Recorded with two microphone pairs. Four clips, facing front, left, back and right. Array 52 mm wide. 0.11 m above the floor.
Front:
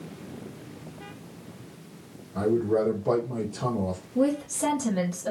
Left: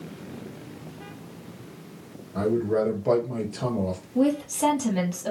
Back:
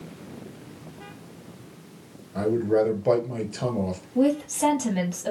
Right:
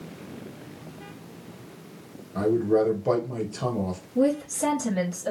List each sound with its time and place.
2.4 s a man speaking: 170° left, 1.8 m
4.2 s a woman speaking: 145° left, 3 m